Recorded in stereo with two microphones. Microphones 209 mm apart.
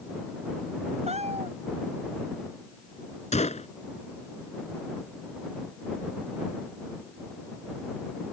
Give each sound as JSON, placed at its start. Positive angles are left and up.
{"t": 1.1, "sound": "a cat meowing", "side_deg": -30}
{"t": 3.3, "sound": "a gunshot", "side_deg": 30}